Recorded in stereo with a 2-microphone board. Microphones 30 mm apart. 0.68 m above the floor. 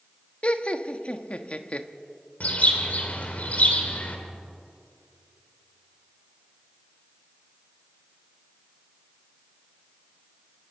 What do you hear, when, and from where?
0.4 s laughter: 40° left (ahead or behind), 1.1 m
2.4 s a bird: 50° left (ahead or behind), 3 m